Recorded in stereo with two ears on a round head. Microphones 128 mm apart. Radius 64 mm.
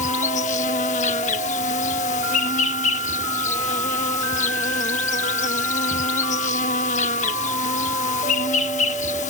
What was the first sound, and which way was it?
An insect, 55° left (ahead or behind).